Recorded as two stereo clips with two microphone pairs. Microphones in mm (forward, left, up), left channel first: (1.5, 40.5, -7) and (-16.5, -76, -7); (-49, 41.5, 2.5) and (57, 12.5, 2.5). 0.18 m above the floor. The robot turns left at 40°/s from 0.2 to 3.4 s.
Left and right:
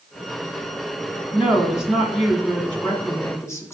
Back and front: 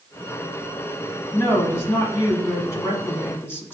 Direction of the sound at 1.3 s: 155° right.